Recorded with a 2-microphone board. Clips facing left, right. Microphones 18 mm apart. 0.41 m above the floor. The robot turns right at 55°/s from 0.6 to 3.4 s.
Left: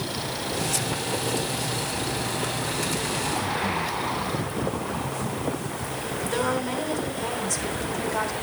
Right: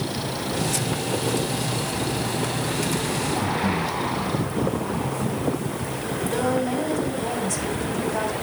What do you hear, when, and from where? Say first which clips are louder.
3.4 s breathing: right 2 dB; 80° right, 1.1 m
6.3 s a woman speaking: right 2 dB; 10° left (ahead or behind), 3 m